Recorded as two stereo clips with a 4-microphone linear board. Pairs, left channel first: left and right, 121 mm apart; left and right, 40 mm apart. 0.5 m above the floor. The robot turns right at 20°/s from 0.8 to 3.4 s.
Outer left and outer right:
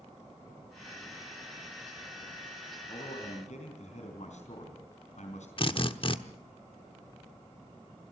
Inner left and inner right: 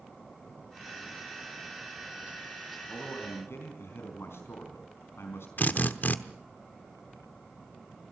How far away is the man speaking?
About 4 m.